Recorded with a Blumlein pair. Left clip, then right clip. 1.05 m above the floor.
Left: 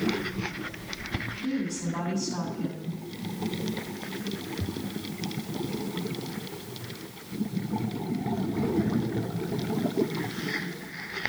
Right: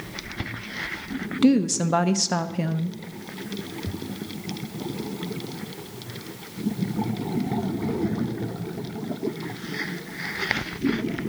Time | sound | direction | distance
1.4 | a woman speaking | 45° right | 0.8 m